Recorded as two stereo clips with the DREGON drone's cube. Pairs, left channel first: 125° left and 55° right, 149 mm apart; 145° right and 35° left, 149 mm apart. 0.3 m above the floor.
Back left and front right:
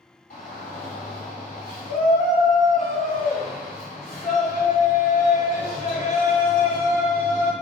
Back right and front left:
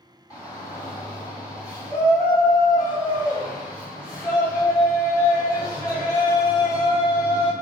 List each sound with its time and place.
0.3 s a shout: 150° left, 1.9 m